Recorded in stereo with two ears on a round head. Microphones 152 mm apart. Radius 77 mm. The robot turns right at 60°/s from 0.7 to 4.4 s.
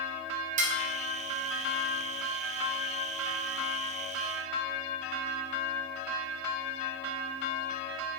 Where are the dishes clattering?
45° right (ahead or behind), 0.6 m; by 0.8 s 50° right (ahead or behind), 0.6 m.